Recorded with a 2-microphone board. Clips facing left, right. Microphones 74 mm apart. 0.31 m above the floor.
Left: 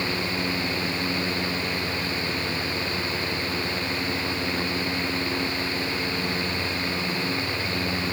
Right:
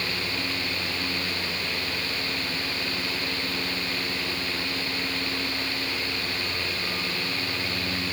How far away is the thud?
No thud in this recording.